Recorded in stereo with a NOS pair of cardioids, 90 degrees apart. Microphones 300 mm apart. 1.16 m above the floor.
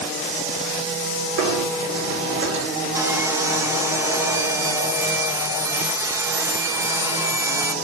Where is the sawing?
10° right, 1.2 m.